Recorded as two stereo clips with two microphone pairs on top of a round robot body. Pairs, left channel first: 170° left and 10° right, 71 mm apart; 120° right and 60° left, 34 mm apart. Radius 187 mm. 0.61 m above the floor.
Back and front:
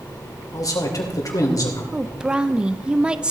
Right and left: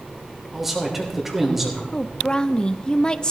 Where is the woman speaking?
80° right, 0.8 m.